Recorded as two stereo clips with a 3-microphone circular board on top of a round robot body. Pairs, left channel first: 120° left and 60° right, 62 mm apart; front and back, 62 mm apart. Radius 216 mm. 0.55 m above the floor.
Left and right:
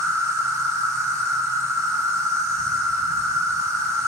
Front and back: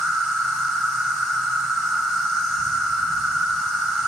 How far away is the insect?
About 1.6 m.